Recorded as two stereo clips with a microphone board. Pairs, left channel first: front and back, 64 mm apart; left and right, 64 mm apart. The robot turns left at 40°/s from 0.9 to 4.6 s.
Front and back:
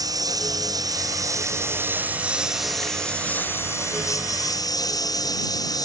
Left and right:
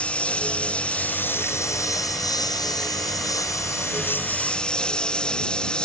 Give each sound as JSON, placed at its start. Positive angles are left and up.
{"t": 0.0, "sound": "a lawn mower", "azimuth_deg": 165}